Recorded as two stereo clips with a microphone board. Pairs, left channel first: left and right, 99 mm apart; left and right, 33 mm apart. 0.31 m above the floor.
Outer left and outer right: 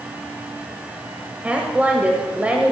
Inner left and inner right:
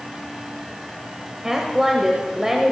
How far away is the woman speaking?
About 1.1 m.